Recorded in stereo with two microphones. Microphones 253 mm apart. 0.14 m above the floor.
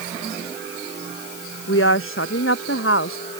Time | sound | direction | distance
1.7 | a woman speaking | 60° left (ahead or behind) | ?